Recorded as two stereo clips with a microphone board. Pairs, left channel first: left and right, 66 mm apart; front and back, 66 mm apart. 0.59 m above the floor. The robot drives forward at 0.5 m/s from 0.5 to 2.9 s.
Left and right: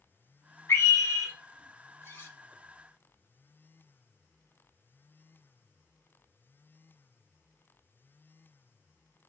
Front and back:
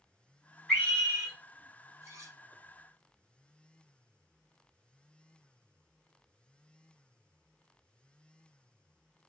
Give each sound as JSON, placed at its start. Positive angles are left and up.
{"t": 0.7, "sound": "a scream", "azimuth_deg": 80, "distance_m": 0.8}
{"t": 2.0, "sound": "cutlery clinking", "azimuth_deg": 140, "distance_m": 0.7}